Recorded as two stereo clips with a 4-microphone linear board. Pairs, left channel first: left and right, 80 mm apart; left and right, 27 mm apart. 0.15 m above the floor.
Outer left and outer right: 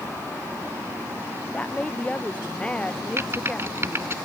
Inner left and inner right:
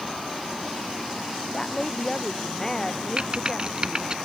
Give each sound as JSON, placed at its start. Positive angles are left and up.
{"t": 1.5, "sound": "a woman speaking", "side_deg": 15}
{"t": 3.2, "sound": "typing on a keyboard", "side_deg": -35}